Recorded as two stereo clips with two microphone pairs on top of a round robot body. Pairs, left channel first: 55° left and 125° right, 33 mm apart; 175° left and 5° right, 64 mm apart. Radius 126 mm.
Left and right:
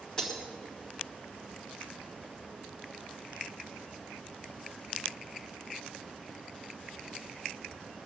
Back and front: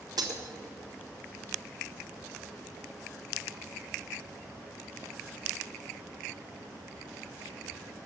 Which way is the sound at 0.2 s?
15° right.